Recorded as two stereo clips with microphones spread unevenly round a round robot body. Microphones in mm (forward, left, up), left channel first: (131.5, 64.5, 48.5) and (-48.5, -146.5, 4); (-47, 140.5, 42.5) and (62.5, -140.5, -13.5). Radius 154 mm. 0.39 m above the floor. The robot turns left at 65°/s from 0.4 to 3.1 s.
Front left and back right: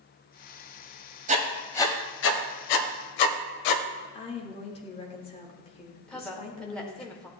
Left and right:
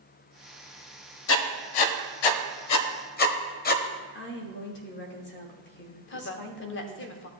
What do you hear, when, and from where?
1.3 s writing: 165° left, 0.8 m; by 3.8 s 45° left, 0.8 m
4.1 s a woman speaking: 110° left, 1.3 m
6.1 s a woman speaking: 150° left, 0.9 m